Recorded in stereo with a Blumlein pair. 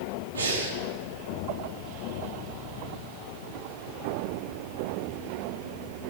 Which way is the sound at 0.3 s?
65° right.